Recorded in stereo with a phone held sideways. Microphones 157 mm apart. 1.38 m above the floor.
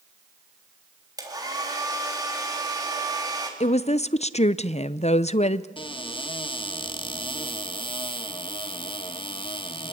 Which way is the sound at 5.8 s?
35° left (ahead or behind).